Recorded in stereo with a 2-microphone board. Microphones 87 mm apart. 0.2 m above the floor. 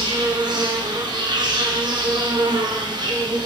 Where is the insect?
55° right (ahead or behind), 0.8 m.